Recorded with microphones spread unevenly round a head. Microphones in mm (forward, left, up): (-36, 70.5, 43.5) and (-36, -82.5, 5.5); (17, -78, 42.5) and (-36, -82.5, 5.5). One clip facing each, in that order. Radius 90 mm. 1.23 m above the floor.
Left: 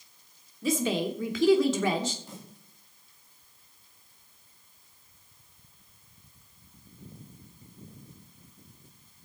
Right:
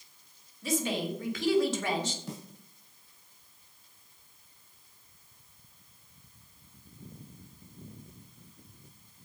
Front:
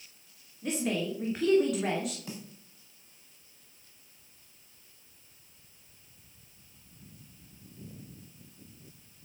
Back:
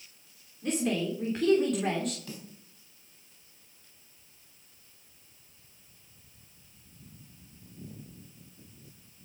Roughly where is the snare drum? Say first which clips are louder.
Right 4 dB, front 1 dB; ahead right.